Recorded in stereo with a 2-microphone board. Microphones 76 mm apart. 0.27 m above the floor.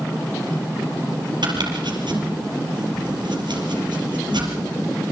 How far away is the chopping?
About 4.5 m.